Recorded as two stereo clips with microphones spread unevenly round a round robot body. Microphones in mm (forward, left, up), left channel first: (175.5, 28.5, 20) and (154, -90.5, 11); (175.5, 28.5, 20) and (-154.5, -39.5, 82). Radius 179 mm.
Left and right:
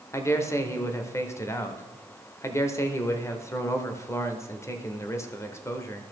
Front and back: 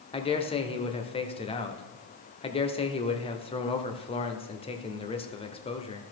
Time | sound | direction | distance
0.1 | a man speaking | 30° left | 0.9 m